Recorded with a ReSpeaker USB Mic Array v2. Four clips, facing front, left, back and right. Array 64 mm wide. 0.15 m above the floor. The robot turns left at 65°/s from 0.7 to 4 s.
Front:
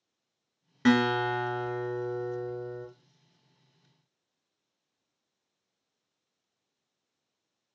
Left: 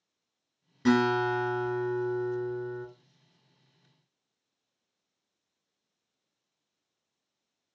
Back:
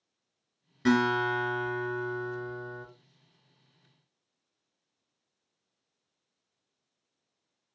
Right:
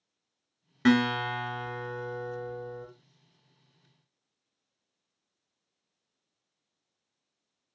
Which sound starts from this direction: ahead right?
A guitar, at 0.8 s.